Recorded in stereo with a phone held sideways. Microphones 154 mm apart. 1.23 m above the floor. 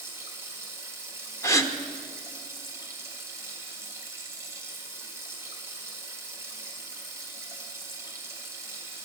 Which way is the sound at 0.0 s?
15° right (ahead or behind).